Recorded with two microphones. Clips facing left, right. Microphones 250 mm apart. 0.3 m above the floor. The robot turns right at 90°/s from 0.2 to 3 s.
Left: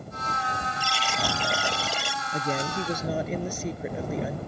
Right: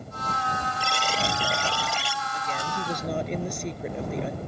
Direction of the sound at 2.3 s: 115° left.